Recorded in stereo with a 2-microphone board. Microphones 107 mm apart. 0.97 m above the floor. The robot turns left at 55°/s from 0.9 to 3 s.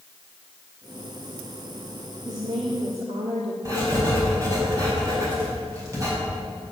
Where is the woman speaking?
35° right, 1.6 m; by 3.5 s 75° right, 1.6 m.